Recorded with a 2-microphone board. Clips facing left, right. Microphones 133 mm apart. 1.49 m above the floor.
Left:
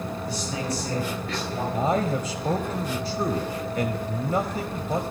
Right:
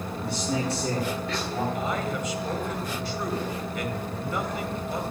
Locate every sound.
0.2 s a man speaking: 65° right (ahead or behind), 4.5 m; by 1.6 s 80° right, 4.5 m
1.7 s a man speaking: 40° left (ahead or behind), 0.6 m